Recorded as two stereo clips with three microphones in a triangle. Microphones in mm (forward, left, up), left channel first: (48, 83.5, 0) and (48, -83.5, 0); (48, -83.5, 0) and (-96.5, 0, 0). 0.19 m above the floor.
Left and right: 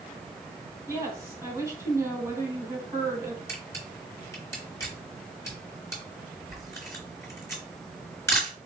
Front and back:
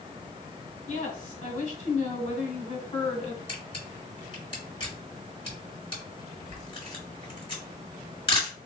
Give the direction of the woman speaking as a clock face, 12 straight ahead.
1 o'clock.